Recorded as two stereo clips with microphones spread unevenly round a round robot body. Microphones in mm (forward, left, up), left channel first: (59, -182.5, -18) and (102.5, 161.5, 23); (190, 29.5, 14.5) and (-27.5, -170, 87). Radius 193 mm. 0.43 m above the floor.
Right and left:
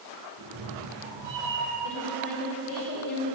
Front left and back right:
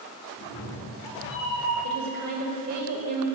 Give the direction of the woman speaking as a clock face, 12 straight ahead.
4 o'clock.